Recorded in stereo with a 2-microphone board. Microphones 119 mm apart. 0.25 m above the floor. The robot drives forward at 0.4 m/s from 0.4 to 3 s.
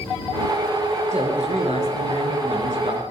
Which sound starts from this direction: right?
A man speaking, at 1.1 s.